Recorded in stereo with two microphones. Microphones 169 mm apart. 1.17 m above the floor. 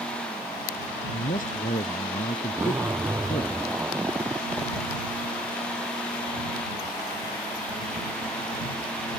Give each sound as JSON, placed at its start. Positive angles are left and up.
{"t": 1.1, "sound": "a man speaking", "side_deg": 50}
{"t": 2.5, "sound": "a zipper", "side_deg": -15}